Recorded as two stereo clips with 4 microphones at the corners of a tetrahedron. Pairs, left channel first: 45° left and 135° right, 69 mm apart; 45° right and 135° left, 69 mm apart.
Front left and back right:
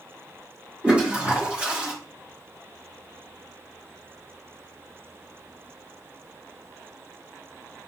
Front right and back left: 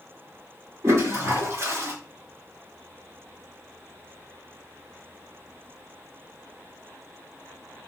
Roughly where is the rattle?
No rattle in this recording.